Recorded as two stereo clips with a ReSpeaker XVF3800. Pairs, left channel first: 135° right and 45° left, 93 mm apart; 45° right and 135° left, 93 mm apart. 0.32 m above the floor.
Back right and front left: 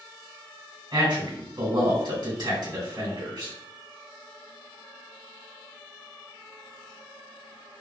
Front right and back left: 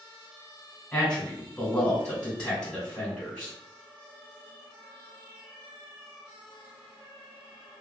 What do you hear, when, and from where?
0.9 s a man speaking: 30° left, 2.0 m